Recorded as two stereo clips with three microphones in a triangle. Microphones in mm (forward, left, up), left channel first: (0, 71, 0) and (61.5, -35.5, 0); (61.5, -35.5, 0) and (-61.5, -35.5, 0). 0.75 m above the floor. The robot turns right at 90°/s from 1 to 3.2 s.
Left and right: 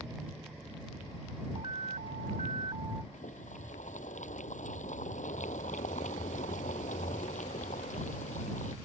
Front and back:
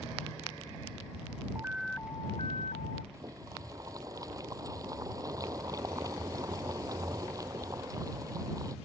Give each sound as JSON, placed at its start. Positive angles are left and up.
{"t": 1.6, "sound": "an alarm", "azimuth_deg": -115}
{"t": 3.1, "sound": "boiling", "azimuth_deg": 115}